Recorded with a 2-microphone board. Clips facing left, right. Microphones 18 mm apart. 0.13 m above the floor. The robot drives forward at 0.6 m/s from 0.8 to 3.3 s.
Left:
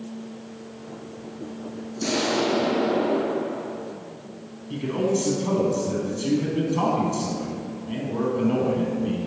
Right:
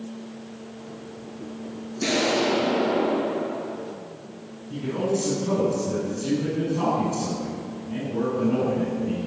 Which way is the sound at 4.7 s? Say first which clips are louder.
Left 2 dB; 50° left (ahead or behind).